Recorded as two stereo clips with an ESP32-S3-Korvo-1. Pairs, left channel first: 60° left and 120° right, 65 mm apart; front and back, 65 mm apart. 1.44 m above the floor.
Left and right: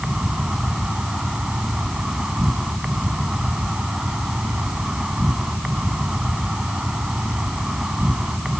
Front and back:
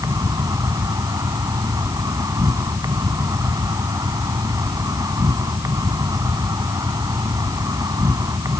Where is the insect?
160° left.